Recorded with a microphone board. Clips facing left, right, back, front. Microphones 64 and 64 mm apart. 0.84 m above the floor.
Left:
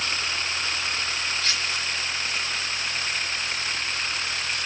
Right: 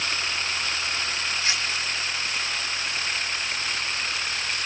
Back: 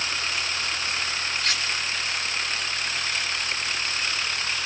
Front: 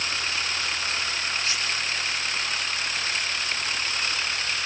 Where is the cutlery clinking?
160° right, 8.5 m.